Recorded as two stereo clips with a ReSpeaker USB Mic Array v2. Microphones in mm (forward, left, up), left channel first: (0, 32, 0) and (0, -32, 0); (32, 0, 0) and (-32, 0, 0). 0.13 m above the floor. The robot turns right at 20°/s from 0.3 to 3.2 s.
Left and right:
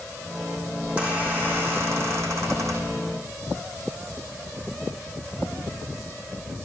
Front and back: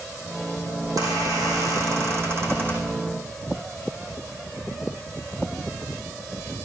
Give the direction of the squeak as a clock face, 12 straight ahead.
5 o'clock.